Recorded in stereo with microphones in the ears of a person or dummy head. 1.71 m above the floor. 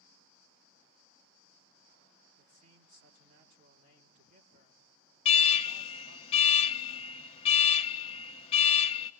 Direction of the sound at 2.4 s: 35° right (ahead or behind).